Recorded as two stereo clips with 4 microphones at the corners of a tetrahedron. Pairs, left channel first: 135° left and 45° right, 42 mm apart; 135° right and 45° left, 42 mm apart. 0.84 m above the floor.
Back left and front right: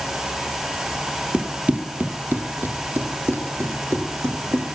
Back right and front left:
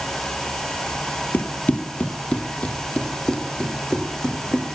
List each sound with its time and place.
1.3 s running footsteps: 100° right, 1.3 m; by 4.8 s 60° right, 3.5 m